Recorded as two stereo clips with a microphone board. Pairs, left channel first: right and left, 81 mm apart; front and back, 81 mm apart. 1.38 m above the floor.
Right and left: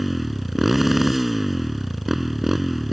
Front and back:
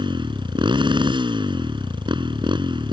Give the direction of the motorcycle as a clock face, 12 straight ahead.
6 o'clock.